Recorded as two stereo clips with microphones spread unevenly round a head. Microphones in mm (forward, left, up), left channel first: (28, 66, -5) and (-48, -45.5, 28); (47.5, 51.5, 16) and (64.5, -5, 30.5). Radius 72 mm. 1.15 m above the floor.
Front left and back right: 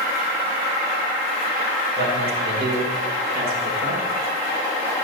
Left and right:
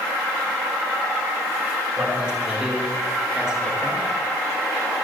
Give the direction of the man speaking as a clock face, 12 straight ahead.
5 o'clock.